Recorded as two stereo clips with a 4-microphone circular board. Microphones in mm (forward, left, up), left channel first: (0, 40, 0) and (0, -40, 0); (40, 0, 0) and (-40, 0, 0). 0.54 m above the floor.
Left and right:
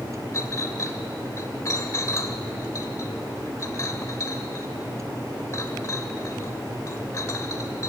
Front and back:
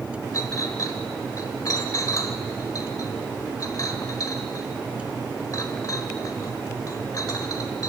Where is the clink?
40° left, 1.3 m.